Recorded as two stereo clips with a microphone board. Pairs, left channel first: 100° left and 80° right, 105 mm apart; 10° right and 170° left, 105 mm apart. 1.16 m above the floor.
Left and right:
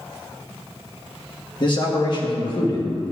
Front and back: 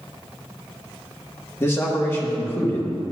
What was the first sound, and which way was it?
A man speaking, 55° left.